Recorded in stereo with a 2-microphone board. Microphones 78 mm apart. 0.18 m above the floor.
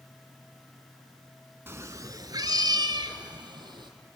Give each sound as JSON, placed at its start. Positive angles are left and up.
{"t": 1.7, "sound": "a cat meowing", "side_deg": -30, "distance_m": 0.6}